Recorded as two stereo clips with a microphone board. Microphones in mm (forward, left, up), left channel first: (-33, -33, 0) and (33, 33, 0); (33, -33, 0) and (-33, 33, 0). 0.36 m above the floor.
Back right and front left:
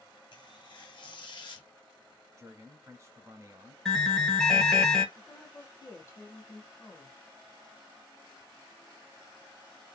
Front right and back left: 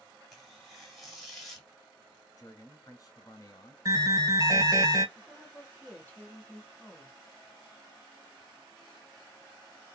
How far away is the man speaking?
About 1.9 m.